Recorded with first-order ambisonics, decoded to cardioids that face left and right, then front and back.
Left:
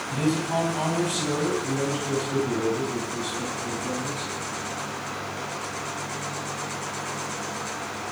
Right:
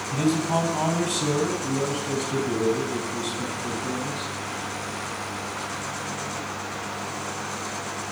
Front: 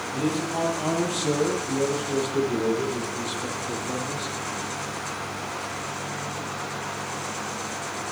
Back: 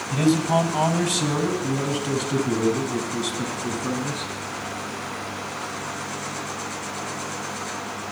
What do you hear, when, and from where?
0.1 s a man speaking: straight behind, 3 m